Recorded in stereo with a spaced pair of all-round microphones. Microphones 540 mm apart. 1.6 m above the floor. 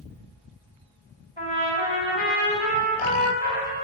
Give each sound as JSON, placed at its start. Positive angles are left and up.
{"t": 1.4, "sound": "a trumpet", "side_deg": 65, "distance_m": 3.5}